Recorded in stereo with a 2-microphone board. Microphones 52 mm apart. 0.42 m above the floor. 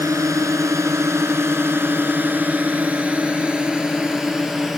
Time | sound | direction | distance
0.0 | a drone | 75° right (ahead or behind) | ?